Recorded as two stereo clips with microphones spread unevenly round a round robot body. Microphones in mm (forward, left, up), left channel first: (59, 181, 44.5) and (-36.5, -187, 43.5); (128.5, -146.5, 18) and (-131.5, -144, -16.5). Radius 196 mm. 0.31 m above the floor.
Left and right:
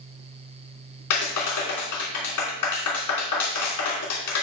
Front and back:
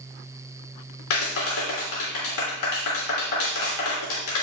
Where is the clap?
35° left, 3 m.